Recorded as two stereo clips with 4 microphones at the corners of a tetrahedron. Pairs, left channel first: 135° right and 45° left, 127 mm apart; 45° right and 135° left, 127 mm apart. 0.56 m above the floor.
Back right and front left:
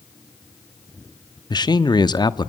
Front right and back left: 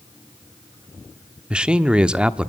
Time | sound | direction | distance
1.5 | a man speaking | 150° right | 0.9 m